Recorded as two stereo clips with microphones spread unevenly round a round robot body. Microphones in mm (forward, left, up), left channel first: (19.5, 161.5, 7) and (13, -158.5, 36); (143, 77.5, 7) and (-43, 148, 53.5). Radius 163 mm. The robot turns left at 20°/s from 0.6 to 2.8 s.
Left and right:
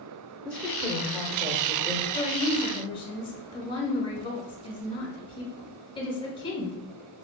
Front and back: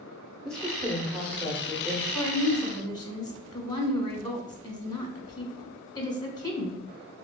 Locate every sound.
0.5 s a woman speaking: 20° left, 0.8 m; by 2.0 s 10° right, 0.8 m
2.1 s a woman speaking: 40° left, 1.3 m; by 6.8 s 25° left, 1.3 m